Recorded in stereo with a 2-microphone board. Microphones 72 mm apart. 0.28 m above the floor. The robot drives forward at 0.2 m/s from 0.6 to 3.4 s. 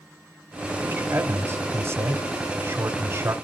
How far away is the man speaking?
About 1.1 m.